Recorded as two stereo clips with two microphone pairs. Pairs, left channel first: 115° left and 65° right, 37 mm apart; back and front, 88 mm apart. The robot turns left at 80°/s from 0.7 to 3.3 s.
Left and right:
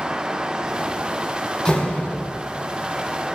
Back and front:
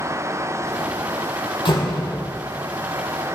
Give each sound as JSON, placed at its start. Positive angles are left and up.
{"t": 1.6, "sound": "a door slam", "azimuth_deg": 180, "distance_m": 3.0}